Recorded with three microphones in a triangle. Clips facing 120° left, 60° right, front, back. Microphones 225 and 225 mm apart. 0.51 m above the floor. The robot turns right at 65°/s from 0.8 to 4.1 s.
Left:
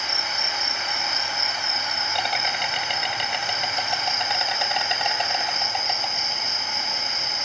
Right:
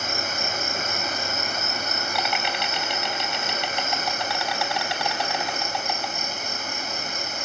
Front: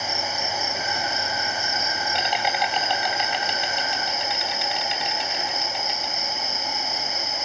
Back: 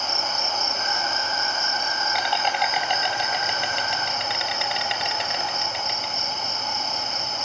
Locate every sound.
0.0 s an insect: 30° right, 3 m; by 7.5 s 175° right, 3 m